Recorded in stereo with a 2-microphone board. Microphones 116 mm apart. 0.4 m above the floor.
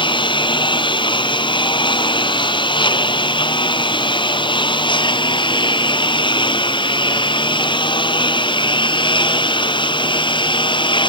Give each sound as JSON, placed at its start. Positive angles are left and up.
{"t": 0.0, "sound": "a lawn mower", "side_deg": 45}